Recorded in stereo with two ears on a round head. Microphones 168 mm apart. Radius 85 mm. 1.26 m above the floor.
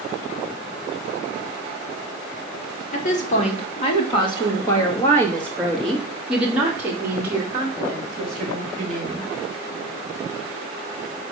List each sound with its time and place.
2.9 s a woman speaking: 45° left (ahead or behind), 2.5 m; by 9.3 s 30° right (ahead or behind), 3.5 m